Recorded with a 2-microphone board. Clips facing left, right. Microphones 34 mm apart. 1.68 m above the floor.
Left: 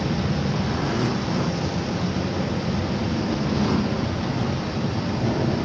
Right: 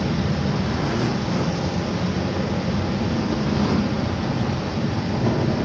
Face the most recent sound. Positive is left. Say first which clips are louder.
# right 1 dB
turn(degrees=-60)  # may be behind; listen again after turning